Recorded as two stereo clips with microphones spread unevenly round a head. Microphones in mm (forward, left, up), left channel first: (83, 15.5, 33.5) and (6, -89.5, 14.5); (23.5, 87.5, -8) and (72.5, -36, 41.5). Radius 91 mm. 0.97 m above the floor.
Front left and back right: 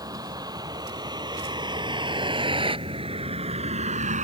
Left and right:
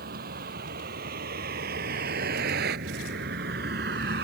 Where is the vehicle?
65° right; by 4.2 s 95° right.